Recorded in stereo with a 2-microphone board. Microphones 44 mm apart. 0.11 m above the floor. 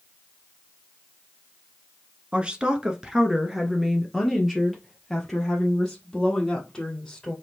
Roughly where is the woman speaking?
Right.